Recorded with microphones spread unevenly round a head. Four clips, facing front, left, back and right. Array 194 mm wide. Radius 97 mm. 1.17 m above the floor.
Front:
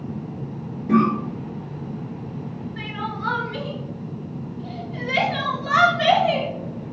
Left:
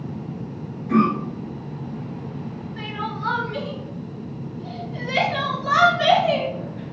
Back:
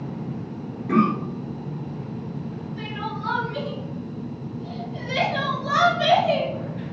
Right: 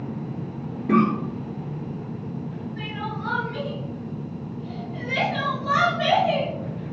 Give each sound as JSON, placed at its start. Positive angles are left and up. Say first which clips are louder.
{"t": 0.9, "sound": "a cough", "louder": "left 1 dB, front 2 dB", "azimuth_deg": -85, "distance_m": 2.5}
{"t": 2.8, "sound": "crying", "louder": "left 4 dB, front 2 dB", "azimuth_deg": 45, "distance_m": 1.5}